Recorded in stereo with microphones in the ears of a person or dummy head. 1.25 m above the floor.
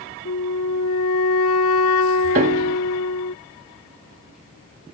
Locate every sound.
0.2 s a flute: 75° left (ahead or behind)
2.4 s a piano: 40° right (ahead or behind)